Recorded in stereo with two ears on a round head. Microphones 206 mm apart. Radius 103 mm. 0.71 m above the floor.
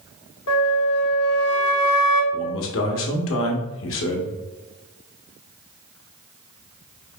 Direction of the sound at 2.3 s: 60° left (ahead or behind).